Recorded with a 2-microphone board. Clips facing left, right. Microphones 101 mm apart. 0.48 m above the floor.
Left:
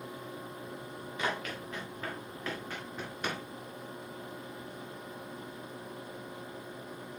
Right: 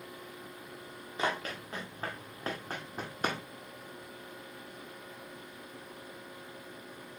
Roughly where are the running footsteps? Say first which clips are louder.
Right 2 dB; right.